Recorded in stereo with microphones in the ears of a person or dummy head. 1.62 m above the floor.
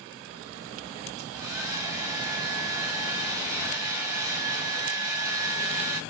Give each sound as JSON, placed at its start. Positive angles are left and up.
{"t": 1.2, "sound": "a hair dryer", "side_deg": -15, "distance_m": 5.0}